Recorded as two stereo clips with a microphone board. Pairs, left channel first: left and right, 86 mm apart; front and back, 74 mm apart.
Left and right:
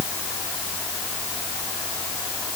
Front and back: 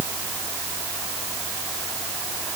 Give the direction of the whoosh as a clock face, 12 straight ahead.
I don't hear a whoosh.